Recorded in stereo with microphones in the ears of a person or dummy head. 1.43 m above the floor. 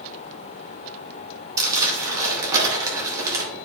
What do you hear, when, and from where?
1.6 s crumpling: 20° right (ahead or behind), 2.5 m